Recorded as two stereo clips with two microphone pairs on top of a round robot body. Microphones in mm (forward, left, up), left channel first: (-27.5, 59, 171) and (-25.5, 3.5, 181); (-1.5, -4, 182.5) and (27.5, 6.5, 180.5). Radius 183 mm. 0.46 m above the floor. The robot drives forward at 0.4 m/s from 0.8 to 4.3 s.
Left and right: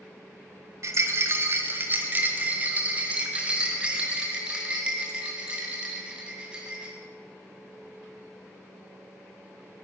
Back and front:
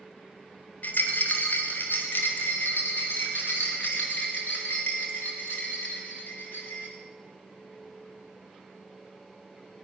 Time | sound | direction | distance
0.8 | a rattle | 125° right | 0.9 m